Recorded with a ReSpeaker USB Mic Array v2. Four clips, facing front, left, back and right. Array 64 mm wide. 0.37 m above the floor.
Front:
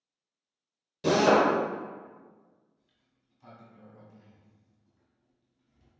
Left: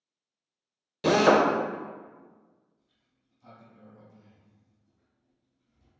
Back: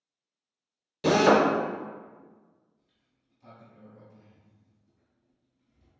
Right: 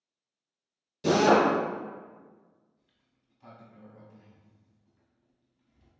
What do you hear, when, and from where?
1.0 s a drill: 120° left, 0.5 m
2.8 s a sliding door: 70° right, 0.7 m